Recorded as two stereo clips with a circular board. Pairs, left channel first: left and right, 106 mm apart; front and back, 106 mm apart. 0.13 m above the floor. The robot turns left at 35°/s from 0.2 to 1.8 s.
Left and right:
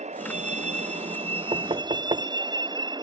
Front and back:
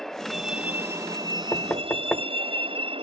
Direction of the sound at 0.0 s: 85° right.